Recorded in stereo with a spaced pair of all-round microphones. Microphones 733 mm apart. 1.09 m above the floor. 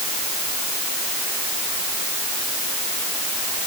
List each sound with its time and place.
Only background noise.